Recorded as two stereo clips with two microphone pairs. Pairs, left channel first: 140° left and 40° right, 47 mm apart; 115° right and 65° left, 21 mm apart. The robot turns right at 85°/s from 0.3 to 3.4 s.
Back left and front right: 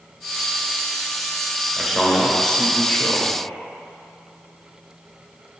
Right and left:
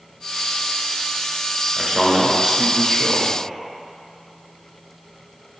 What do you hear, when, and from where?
1.8 s a man speaking: 20° left, 1.1 m; by 3.4 s 155° left, 1.1 m